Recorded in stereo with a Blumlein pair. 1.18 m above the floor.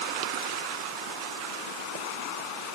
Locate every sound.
Only background noise.